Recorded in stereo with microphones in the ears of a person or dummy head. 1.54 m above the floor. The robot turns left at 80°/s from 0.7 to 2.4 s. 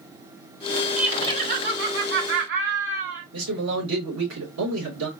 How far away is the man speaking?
About 2.5 m.